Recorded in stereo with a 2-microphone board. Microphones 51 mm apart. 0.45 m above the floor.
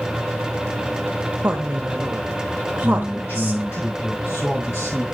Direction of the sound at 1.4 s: 30° right (ahead or behind).